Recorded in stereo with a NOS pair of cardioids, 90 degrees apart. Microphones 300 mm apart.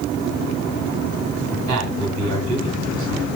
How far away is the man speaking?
About 7 m.